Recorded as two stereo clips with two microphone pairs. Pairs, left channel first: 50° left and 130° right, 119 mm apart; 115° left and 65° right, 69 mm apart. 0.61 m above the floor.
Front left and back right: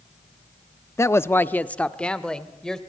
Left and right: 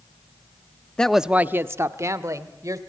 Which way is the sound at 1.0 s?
50° left.